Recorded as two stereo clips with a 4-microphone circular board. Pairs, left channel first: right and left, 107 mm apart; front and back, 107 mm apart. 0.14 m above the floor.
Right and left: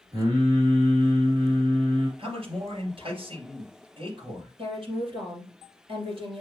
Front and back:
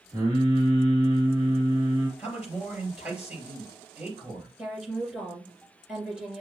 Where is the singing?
135° left, 3 m.